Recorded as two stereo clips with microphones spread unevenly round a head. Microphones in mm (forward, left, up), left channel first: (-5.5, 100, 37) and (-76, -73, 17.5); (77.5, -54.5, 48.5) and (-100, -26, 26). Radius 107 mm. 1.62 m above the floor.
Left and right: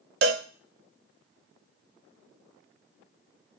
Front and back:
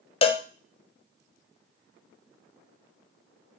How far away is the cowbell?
About 0.6 m.